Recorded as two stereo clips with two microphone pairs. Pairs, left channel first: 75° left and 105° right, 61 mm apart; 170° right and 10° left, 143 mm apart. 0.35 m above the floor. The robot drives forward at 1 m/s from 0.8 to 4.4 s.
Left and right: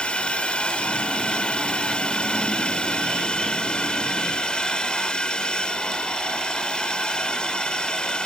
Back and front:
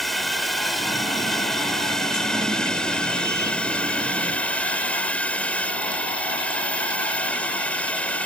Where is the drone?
105° left; by 8.3 s 125° left.